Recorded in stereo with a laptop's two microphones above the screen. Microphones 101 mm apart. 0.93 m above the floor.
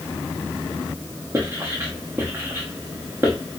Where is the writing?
30° right (ahead or behind), 0.9 m.